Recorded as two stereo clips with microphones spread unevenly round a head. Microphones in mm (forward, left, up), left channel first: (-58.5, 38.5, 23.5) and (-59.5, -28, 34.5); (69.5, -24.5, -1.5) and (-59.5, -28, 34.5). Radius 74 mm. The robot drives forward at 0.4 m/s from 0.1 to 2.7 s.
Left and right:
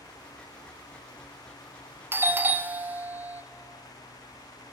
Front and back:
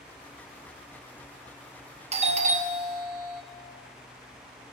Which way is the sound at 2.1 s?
145° right.